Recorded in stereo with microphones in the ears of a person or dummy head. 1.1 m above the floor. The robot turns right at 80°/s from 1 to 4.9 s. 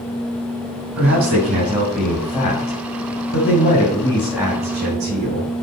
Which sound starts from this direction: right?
A man speaking, at 1.0 s.